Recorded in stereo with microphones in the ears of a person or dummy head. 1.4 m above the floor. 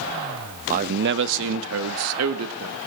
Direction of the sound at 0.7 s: 45° right (ahead or behind).